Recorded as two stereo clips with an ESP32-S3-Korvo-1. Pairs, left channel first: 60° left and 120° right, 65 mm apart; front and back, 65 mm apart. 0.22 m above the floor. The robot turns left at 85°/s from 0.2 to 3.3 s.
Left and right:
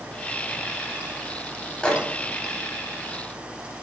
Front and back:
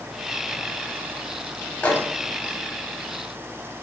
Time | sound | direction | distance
1.8 | a microwave | 10° left | 0.8 m